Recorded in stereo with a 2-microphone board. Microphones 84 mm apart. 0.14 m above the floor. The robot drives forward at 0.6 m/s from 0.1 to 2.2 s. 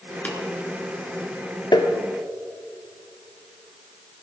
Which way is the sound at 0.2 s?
20° left (ahead or behind).